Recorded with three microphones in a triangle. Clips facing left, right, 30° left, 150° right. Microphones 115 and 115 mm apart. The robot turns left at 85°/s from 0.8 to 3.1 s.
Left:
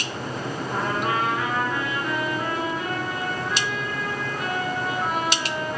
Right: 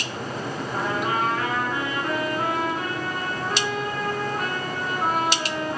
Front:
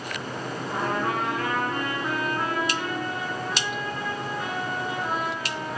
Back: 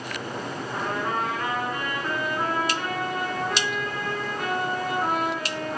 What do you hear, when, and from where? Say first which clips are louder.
0.7 s a trumpet: left 1 dB, front 2 dB; 65° left, 8.5 m; by 5.8 s 130° right, 8.5 m